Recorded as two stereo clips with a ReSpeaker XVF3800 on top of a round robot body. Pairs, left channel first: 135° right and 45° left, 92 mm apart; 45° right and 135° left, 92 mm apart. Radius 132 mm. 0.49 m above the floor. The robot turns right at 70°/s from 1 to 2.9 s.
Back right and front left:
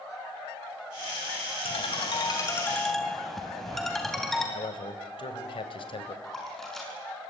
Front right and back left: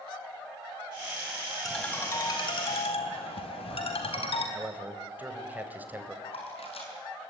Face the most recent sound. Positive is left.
turn(degrees=-50)